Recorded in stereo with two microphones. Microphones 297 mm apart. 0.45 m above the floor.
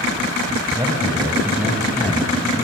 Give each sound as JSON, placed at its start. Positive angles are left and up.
{"t": 0.8, "sound": "a man speaking", "side_deg": -15, "distance_m": 3.0}